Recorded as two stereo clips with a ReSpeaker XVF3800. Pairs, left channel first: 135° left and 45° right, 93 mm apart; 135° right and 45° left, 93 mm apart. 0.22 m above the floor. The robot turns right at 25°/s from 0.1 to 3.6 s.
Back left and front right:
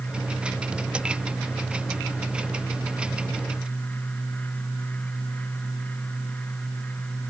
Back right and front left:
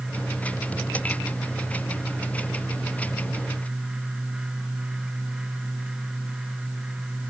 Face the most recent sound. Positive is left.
No sound to turn to.